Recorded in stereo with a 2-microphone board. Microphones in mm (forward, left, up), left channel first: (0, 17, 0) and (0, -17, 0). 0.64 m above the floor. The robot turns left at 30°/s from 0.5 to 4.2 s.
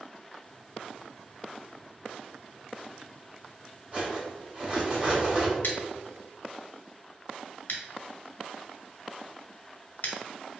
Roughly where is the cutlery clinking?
Right.